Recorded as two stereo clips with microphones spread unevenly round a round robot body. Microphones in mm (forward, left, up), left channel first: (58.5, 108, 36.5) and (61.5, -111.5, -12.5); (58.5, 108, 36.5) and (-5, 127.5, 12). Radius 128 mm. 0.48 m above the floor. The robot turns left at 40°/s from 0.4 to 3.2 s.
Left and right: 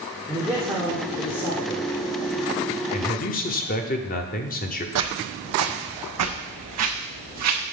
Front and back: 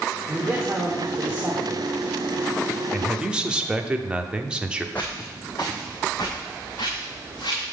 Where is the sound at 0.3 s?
155° right, 1.1 m; by 1.9 s 145° left, 1.1 m.